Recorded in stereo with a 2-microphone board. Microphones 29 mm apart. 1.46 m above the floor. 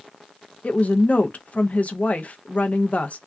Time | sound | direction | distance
0.6 | a woman speaking | 50° left (ahead or behind) | 0.5 m